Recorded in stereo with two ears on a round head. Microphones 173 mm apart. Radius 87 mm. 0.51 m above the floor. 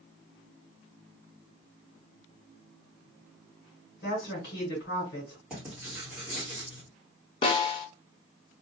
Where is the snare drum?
30° left (ahead or behind), 0.5 m.